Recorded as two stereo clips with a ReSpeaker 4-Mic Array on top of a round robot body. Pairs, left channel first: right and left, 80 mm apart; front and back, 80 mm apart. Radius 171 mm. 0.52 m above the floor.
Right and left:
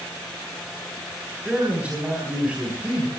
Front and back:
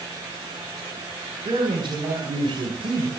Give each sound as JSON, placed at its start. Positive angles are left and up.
{"t": 1.4, "sound": "a man speaking", "azimuth_deg": 165, "distance_m": 4.0}